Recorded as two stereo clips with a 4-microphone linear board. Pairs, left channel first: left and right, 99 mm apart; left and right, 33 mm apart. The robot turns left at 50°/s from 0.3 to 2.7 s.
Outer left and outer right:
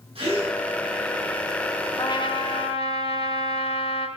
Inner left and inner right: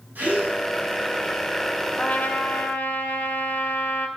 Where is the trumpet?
135° left, 1.5 m; by 4.1 s 95° left, 1.5 m.